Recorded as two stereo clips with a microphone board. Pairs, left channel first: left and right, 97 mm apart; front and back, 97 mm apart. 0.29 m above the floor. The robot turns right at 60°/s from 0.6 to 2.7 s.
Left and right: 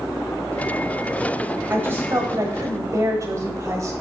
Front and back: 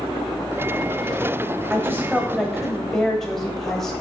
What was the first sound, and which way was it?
A woman speaking, 140° right.